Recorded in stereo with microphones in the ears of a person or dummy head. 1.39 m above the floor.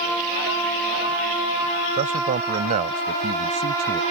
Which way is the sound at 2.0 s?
35° right (ahead or behind).